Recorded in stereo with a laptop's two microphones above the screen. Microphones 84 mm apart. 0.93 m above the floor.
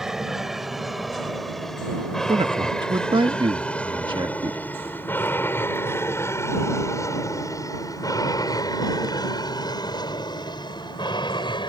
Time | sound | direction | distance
0.0 | an aircraft | 5° right (ahead or behind) | ?
2.3 | a man speaking | 75° right (ahead or behind) | ?